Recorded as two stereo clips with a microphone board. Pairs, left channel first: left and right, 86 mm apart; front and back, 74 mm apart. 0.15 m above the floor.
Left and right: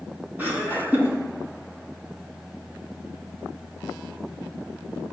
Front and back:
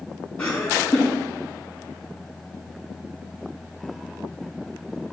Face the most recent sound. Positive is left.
turn(degrees=-60)